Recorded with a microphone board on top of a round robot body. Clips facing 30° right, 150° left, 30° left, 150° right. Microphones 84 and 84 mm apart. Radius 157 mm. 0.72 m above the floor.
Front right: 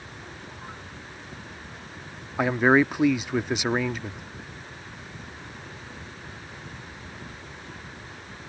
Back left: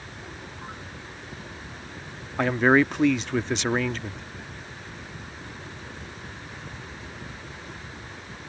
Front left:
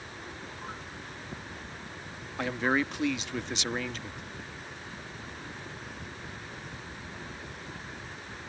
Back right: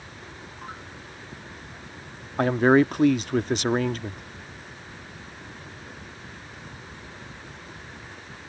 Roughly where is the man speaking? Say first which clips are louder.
Even, back right 10 dB; right.